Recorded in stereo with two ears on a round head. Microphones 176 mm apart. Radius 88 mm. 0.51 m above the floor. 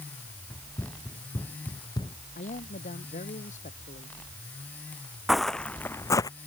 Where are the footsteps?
Centre (ahead or behind); by 6.3 s 20° left (ahead or behind).